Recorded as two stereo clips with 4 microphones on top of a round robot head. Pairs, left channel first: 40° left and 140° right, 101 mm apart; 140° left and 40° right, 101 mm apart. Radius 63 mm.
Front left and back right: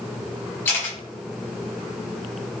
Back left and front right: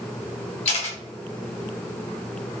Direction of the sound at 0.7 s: 110° left.